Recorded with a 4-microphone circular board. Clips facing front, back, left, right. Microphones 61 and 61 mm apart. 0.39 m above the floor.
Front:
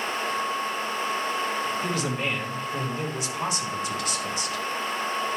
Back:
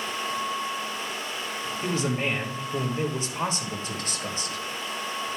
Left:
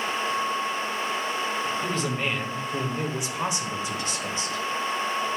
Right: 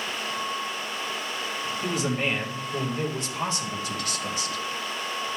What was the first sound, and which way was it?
A man speaking, 150° right.